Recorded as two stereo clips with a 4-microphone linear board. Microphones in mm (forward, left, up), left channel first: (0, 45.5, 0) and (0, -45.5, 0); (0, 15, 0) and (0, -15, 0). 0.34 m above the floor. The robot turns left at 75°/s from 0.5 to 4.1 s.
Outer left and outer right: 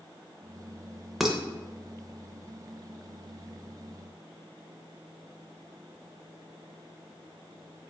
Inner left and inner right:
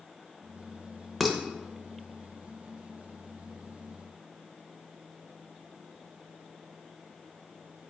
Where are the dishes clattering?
Centre (ahead or behind), 0.6 m; by 1.4 s 10° right (ahead or behind), 0.6 m.